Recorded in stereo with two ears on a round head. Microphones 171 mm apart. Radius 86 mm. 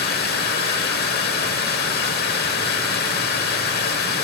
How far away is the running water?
About 1.0 m.